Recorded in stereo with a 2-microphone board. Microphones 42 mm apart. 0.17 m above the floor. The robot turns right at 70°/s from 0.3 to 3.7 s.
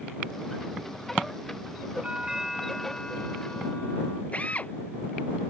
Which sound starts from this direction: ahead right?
A doorbell, at 2.0 s.